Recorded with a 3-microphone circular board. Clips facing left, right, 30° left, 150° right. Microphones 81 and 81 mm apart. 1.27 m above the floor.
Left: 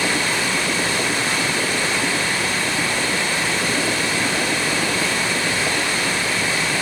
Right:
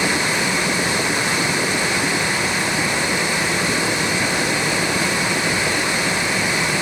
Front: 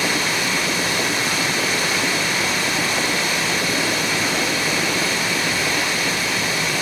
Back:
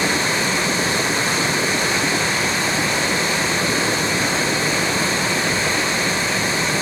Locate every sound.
0.0 s running water: 140° right, 1.1 m